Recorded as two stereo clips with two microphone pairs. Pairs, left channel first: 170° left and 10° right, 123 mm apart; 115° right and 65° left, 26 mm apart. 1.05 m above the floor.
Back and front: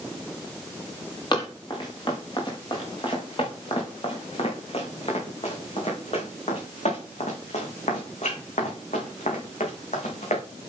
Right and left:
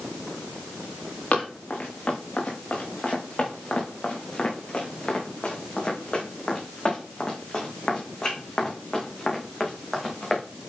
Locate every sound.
1.3 s running footsteps: 140° right, 6 m; by 10.4 s 170° left, 5 m